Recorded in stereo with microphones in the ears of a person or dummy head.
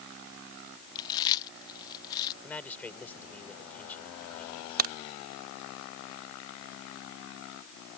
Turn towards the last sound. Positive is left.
turn(degrees=-50)  # may be behind; listen again after turning